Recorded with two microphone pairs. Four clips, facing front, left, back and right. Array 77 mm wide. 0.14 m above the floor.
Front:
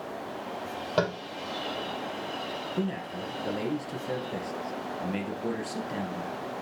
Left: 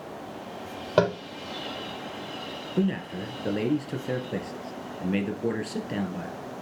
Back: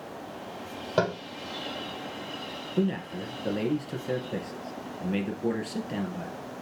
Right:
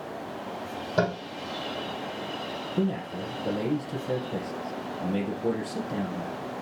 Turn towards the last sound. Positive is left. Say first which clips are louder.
# left 2 dB, back 6 dB
turn(degrees=100)